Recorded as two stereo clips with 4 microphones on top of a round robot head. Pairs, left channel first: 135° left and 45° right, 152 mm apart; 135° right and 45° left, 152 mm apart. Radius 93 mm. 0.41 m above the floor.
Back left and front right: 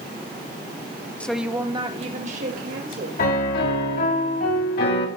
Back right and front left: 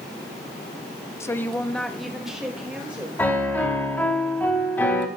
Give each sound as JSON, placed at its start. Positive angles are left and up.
{"t": 1.2, "sound": "a woman speaking", "azimuth_deg": -165, "distance_m": 0.9}
{"t": 3.2, "sound": "a piano", "azimuth_deg": 145, "distance_m": 3.0}